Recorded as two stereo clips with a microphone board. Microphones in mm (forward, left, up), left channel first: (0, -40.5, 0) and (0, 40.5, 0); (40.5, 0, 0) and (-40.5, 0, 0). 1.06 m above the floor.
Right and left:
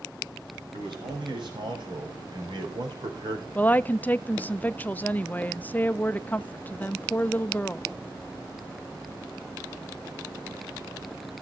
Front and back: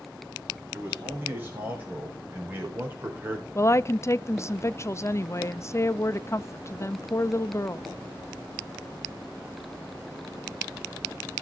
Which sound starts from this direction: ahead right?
A woman speaking, at 3.5 s.